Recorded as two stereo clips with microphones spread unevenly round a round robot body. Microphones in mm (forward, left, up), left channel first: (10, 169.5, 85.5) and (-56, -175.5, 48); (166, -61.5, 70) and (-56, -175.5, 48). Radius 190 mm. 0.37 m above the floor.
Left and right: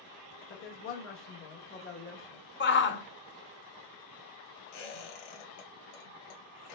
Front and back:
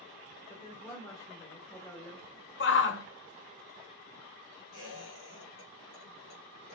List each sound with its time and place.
0.5 s a woman speaking: 105° left, 1.0 m
2.6 s a shout: 25° left, 1.0 m
4.7 s a squeak: 90° left, 3 m